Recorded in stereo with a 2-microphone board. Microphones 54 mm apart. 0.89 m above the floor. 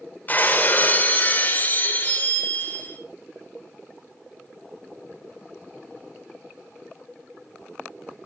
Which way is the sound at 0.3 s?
35° left (ahead or behind).